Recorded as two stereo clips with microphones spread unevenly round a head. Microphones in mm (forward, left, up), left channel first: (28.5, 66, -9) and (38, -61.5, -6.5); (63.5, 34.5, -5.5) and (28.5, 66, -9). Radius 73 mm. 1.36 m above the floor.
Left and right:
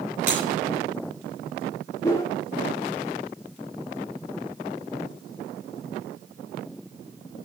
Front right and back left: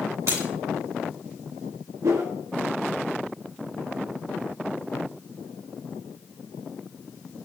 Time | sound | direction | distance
0.3 | breaking glass | 160° right | 5 m
2.0 | a whoosh | 160° left | 1.3 m